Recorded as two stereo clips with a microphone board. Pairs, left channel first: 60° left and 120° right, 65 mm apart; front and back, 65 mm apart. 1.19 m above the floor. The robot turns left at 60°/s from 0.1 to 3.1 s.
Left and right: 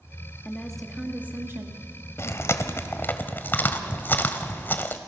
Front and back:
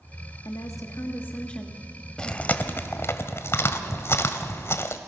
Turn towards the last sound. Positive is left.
turn(degrees=15)